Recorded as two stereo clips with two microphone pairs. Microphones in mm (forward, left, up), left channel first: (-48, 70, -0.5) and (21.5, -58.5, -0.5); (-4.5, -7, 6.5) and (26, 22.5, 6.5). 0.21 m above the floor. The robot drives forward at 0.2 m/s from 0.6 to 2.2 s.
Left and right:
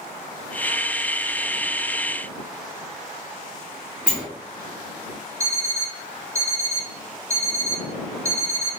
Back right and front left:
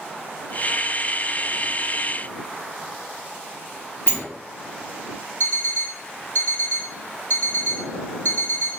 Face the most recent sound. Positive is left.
turn(degrees=-125)